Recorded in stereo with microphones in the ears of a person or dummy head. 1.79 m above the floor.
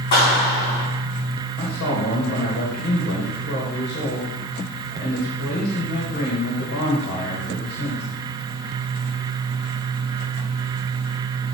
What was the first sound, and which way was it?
A clap, 45° left (ahead or behind).